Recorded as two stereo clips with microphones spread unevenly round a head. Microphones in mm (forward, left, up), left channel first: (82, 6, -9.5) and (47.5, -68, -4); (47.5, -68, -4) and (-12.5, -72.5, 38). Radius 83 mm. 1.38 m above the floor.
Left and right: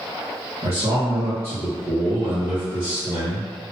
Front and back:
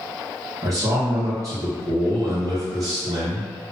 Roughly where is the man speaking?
Behind right.